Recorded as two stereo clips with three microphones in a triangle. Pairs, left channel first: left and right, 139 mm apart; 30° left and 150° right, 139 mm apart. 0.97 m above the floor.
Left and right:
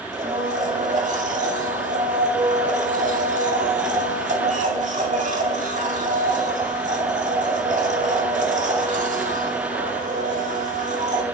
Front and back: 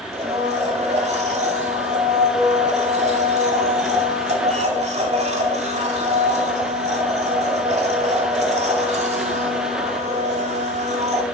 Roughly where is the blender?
Behind right.